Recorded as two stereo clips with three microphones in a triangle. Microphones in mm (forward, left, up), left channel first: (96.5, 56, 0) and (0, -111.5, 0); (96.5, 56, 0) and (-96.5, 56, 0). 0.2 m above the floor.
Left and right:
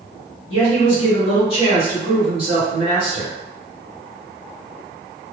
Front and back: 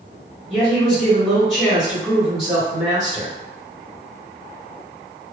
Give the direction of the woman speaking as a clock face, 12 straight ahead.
9 o'clock.